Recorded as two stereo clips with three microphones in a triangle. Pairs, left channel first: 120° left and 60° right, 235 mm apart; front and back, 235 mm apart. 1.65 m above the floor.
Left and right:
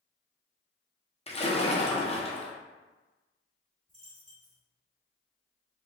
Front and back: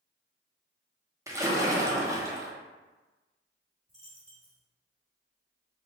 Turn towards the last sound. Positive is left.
turn(degrees=125)